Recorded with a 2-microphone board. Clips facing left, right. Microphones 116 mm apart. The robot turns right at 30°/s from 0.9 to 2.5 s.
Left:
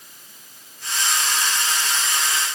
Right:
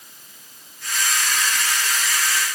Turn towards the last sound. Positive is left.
No sound to turn to.